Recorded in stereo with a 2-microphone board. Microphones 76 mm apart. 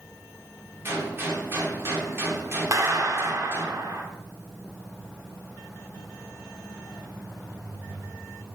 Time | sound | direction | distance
0.8 | a gunshot | 35° right (ahead or behind) | 1.8 m
2.7 | a clap | 50° right (ahead or behind) | 1.4 m